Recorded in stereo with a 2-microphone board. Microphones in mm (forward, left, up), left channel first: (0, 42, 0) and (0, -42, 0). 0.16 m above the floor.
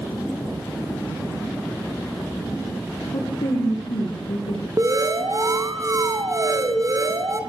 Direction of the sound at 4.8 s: 40° right (ahead or behind).